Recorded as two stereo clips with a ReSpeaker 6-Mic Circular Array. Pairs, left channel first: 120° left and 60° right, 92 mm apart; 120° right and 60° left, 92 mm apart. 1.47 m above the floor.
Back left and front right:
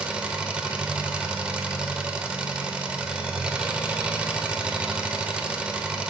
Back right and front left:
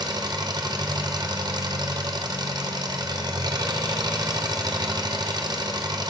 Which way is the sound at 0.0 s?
20° left.